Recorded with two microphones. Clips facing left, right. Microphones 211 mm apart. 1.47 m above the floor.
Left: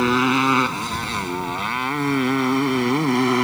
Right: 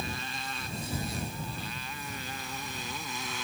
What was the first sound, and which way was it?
A motorcycle, 85° left.